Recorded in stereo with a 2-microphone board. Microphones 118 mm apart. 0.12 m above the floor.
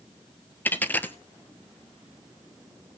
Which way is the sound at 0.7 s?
15° left (ahead or behind).